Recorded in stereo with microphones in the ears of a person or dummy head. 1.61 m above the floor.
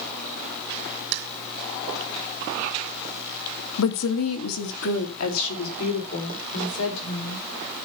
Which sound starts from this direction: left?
A woman speaking, at 3.8 s.